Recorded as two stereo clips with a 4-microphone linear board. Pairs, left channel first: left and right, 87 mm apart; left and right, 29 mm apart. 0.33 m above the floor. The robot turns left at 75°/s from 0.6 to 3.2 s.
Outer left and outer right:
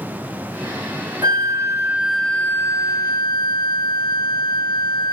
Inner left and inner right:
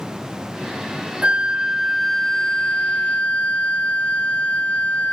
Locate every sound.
1.2 s a flute: 115° right, 0.7 m; by 5.1 s 100° left, 0.7 m